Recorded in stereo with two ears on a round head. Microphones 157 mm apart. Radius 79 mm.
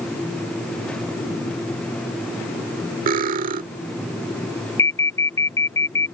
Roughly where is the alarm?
Centre.